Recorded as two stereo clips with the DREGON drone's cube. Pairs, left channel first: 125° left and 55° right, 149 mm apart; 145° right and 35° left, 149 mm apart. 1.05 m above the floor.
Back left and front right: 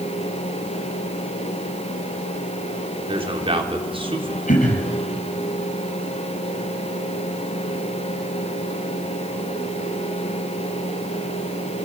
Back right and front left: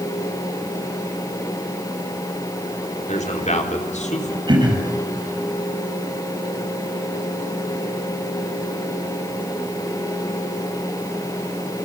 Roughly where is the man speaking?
Right.